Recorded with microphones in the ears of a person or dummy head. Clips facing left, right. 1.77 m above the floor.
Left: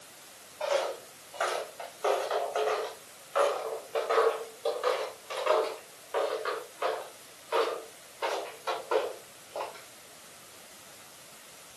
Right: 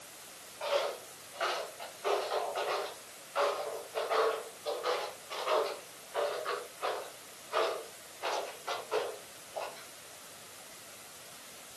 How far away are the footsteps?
About 6 m.